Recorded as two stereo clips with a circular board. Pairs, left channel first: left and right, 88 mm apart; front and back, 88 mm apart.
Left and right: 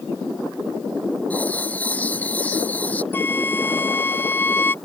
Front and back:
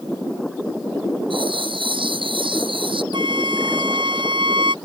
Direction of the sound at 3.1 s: 155° left.